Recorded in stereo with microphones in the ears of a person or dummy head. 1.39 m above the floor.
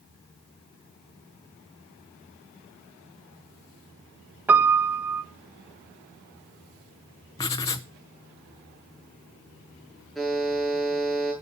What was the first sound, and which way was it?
A piano, 10° right (ahead or behind).